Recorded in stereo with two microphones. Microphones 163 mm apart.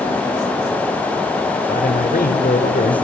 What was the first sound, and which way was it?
A man speaking, 60° left (ahead or behind).